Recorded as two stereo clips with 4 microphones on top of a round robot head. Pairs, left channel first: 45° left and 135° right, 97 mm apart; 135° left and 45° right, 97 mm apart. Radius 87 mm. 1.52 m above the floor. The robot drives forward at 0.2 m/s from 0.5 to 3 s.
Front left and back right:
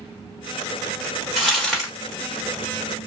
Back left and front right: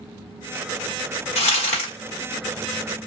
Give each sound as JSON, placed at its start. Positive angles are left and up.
{"t": 1.4, "sound": "crumpling", "azimuth_deg": 130, "distance_m": 1.3}